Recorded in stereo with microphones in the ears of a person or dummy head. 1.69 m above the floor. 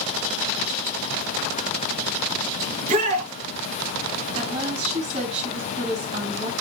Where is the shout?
35° right (ahead or behind), 2.5 m.